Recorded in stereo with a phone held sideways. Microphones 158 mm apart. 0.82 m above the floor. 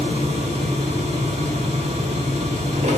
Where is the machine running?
45° right (ahead or behind), 1.0 m.